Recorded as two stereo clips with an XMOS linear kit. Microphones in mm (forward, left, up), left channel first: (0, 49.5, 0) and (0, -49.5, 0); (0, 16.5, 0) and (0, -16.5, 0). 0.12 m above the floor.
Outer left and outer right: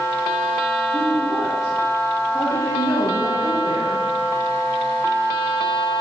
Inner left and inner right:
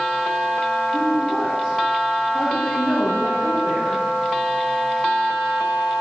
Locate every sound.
0.9 s a woman speaking: 30° left (ahead or behind), 4 m